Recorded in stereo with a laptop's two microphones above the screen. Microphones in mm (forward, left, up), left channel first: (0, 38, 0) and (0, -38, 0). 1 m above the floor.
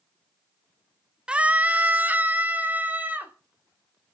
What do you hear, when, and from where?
1.3 s a scream: 15° right (ahead or behind), 0.6 m; by 3.3 s 25° right (ahead or behind), 3 m